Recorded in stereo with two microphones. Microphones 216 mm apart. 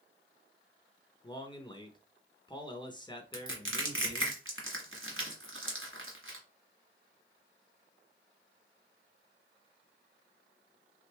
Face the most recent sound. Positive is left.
turn(degrees=-75)  # may be behind; listen again after turning